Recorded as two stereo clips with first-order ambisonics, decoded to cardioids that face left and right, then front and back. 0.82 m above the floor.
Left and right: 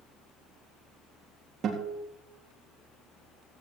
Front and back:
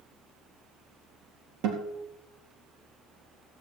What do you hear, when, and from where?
1.6 s a guitar: 150° right, 3.5 m